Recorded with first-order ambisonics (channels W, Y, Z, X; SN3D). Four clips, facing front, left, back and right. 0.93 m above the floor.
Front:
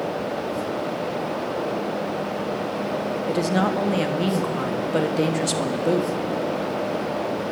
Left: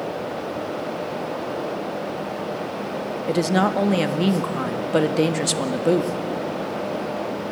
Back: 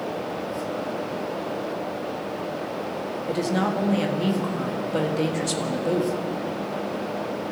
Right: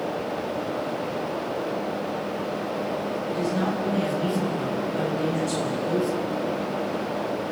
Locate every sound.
3.3 s a woman speaking: 75° left, 1.5 m